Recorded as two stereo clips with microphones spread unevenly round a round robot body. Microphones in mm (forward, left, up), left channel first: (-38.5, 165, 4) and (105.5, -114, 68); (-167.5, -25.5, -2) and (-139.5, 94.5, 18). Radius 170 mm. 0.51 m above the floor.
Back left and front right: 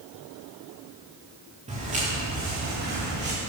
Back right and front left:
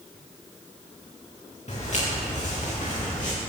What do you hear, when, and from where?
1.7 s footsteps: 135° right, 3.5 m; by 3.3 s 120° right, 4.5 m